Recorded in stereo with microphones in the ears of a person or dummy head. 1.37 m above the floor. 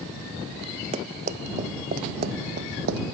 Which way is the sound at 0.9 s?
35° right (ahead or behind).